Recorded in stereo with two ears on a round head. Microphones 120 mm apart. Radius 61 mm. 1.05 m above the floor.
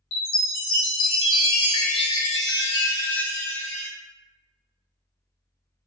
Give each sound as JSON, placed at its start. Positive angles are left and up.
{"t": 0.1, "sound": "a chime", "side_deg": 45, "distance_m": 1.2}